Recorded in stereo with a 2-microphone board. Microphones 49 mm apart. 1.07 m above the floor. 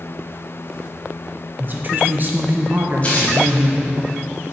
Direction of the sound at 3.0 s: 30° left (ahead or behind).